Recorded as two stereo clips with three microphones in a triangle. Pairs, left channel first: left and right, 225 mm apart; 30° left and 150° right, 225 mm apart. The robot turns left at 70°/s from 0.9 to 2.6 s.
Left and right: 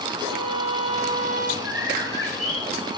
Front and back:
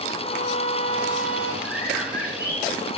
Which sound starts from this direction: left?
A violin, at 0.2 s.